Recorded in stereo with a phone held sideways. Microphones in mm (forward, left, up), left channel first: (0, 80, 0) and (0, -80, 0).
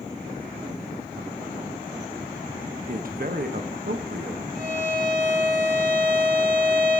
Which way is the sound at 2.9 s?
60° right (ahead or behind).